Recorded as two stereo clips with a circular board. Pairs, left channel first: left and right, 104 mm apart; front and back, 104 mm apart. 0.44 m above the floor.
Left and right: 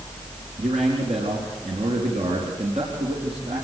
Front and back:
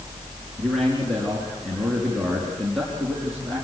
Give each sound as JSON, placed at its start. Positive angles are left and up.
{"t": 0.6, "sound": "a man speaking", "azimuth_deg": -90, "distance_m": 5.0}